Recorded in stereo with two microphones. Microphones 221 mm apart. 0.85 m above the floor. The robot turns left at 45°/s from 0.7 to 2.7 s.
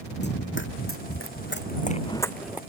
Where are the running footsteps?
50° left (ahead or behind); by 2.6 s 10° right (ahead or behind).